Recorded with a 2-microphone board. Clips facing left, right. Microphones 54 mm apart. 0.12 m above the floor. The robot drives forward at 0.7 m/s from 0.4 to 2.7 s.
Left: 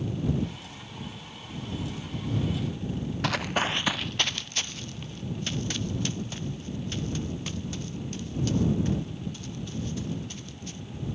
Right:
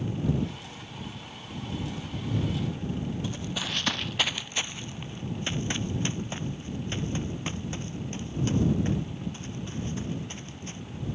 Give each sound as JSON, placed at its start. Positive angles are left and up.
{"t": 3.2, "sound": "running footsteps", "side_deg": 80}